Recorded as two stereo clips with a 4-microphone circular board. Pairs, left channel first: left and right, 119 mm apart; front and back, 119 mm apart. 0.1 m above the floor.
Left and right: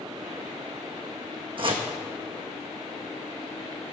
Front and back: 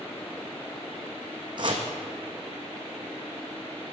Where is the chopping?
130° right, 1.0 m.